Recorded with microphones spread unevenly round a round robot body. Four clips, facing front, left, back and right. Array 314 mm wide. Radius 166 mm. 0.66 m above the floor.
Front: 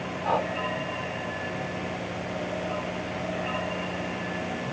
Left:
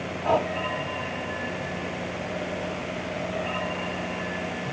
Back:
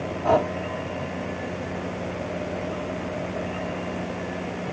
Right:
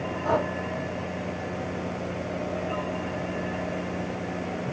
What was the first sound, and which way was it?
Breathing, 175° right.